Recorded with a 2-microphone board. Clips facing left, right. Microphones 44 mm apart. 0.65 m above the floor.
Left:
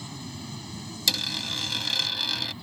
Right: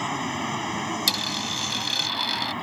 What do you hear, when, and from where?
0.0 s an aircraft: 55° right (ahead or behind)
1.1 s a dropped coin: centre (ahead or behind)